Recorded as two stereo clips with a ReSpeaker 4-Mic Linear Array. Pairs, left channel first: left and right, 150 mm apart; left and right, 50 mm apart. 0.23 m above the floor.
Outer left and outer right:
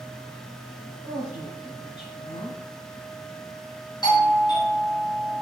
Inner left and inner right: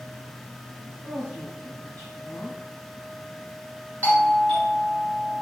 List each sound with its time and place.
1.0 s a woman speaking: 40° left (ahead or behind), 1.3 m
4.0 s a doorbell: 30° left (ahead or behind), 1.7 m